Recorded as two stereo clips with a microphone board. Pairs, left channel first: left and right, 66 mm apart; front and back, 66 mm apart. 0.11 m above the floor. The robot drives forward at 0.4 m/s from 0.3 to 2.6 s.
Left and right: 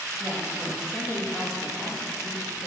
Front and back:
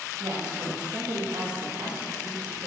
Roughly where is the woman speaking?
Behind.